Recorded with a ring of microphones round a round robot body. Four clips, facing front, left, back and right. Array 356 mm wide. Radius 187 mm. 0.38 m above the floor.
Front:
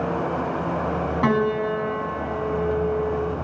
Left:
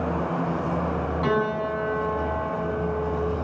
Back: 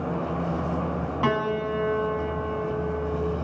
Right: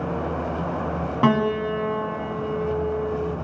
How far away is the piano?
About 3 m.